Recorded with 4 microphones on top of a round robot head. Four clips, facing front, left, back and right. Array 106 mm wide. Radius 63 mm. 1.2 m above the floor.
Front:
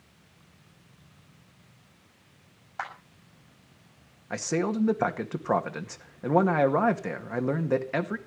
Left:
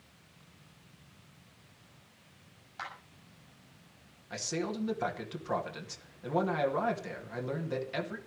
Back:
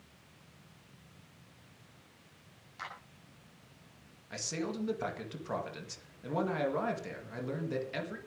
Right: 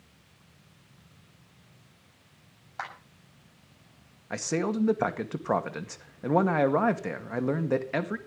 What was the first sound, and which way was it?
A clap, 35° right.